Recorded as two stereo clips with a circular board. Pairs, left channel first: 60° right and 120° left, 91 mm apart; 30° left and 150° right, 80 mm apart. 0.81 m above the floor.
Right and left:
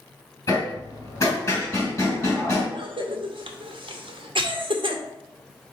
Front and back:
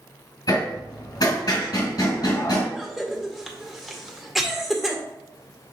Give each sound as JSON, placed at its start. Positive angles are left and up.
{"t": 0.5, "sound": "hammering", "azimuth_deg": 0, "distance_m": 2.5}
{"t": 2.7, "sound": "a cough", "azimuth_deg": 120, "distance_m": 0.8}